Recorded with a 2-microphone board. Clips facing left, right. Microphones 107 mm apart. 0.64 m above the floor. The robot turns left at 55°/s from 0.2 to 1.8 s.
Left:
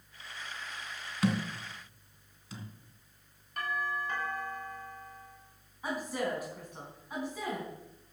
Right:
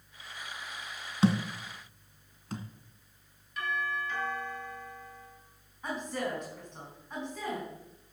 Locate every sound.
1.2 s a thud: 30° right (ahead or behind), 1.4 m; by 2.6 s 60° right (ahead or behind), 1.4 m
3.6 s a doorbell: 50° left (ahead or behind), 6.5 m
5.8 s a woman speaking: 10° left (ahead or behind), 4.5 m